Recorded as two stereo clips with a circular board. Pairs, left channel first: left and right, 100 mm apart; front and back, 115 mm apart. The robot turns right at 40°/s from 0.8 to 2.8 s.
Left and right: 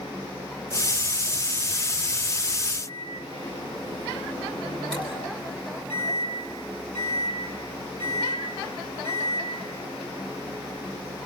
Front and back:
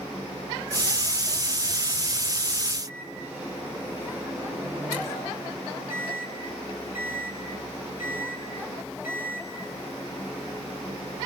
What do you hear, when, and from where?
2.9 s a microwave: 105° left, 9.5 m